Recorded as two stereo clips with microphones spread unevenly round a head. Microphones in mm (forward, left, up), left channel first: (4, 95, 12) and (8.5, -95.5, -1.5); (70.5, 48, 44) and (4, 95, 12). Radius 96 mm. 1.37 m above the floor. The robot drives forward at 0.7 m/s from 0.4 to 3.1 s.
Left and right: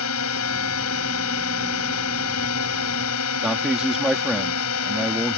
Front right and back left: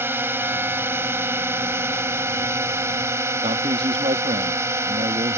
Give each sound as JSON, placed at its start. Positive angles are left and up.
{"t": 0.0, "sound": "a drone", "azimuth_deg": 80}
{"t": 3.4, "sound": "a man speaking", "azimuth_deg": -175}